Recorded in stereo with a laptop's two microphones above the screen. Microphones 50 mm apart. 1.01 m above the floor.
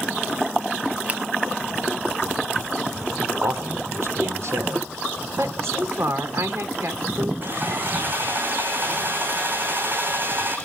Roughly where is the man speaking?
Right.